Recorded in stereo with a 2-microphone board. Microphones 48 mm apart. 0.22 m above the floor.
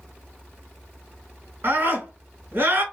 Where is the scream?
50° right (ahead or behind), 3 m.